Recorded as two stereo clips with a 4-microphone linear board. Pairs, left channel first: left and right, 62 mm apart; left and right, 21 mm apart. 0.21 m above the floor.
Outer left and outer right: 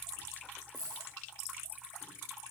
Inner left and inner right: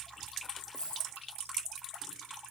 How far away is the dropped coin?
About 4 m.